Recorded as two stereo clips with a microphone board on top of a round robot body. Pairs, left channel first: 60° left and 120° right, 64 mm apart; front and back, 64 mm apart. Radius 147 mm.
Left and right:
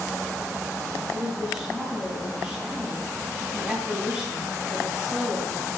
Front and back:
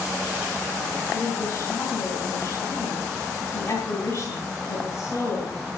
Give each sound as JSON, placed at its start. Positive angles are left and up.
{"t": 1.1, "sound": "a woman speaking", "azimuth_deg": -50, "distance_m": 4.0}